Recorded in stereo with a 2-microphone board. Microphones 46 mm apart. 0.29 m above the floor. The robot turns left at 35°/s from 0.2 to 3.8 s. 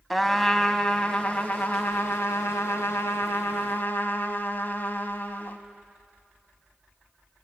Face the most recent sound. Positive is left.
turn(degrees=50)